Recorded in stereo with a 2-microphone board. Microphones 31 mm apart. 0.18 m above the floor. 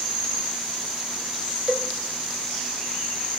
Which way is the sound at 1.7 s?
40° right (ahead or behind).